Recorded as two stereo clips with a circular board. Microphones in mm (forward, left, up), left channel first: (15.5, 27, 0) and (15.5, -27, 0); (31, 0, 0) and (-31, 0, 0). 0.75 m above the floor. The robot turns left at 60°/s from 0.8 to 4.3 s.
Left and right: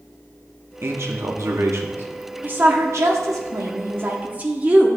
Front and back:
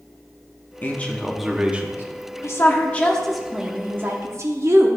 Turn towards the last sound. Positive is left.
turn(degrees=-150)